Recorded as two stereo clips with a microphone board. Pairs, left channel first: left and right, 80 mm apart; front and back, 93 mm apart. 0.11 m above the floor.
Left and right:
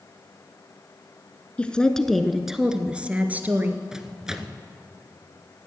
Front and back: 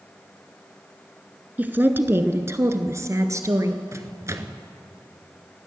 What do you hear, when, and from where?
1.6 s a woman speaking: 140° left, 1.1 m; by 3.8 s 145° right, 1.5 m
3.9 s a microwave: 165° right, 1.0 m